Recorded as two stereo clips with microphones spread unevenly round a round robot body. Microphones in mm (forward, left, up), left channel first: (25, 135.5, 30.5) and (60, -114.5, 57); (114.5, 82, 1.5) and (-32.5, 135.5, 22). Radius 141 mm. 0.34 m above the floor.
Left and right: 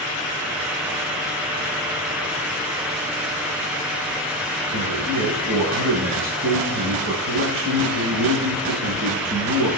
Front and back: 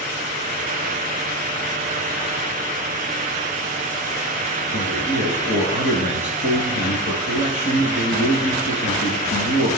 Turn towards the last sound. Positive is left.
turn(degrees=-40)